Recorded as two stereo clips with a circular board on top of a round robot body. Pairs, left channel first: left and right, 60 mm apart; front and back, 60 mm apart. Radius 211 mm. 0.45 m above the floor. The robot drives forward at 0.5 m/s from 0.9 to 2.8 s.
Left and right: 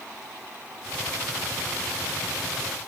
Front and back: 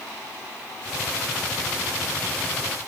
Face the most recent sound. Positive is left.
No sound to turn to.